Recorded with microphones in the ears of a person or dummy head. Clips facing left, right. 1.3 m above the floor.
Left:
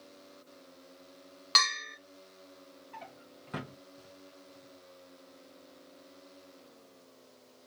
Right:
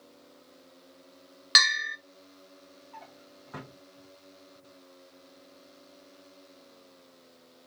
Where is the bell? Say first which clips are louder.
Right 2 dB; 20° right (ahead or behind), 0.8 m.